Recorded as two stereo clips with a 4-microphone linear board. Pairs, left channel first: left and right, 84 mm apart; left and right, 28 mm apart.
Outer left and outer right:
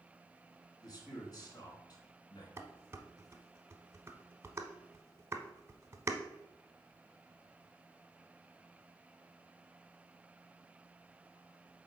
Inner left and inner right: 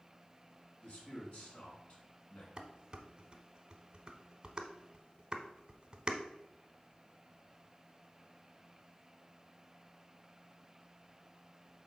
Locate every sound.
0.8 s a man speaking: 50° left (ahead or behind), 2 m
2.6 s dishes clattering: 30° right (ahead or behind), 0.8 m